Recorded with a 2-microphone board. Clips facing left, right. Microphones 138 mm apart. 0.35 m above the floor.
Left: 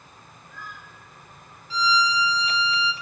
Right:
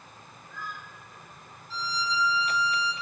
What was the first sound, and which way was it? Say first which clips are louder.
A violin: left 8 dB; 80° left.